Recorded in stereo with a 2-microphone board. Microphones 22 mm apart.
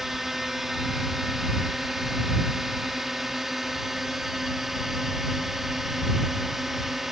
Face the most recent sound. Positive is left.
turn(degrees=-10)  # may be behind; listen again after turning